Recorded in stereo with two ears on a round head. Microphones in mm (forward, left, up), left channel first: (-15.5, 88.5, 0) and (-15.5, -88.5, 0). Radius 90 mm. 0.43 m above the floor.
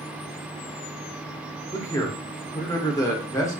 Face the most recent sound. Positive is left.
turn(degrees=15)  # may be behind; listen again after turning